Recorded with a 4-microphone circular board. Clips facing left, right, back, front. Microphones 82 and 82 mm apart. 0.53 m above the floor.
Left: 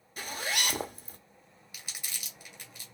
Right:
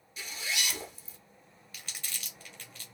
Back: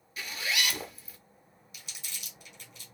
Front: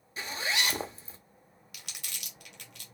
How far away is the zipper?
About 0.6 m.